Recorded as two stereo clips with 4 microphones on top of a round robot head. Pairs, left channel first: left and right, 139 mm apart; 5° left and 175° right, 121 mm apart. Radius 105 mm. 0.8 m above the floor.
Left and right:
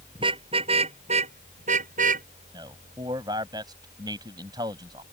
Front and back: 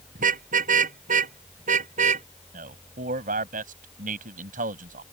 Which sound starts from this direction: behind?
A man speaking, at 2.5 s.